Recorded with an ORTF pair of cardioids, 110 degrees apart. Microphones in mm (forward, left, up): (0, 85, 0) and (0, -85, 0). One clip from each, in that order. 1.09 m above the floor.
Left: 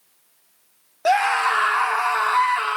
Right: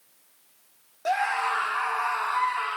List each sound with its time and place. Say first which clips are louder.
1.1 s a scream: left 7 dB; 45° left, 0.8 m